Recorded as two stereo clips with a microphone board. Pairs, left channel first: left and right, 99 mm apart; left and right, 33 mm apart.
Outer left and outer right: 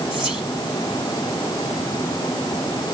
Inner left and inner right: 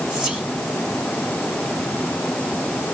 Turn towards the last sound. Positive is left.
turn(degrees=-10)  # may be behind; listen again after turning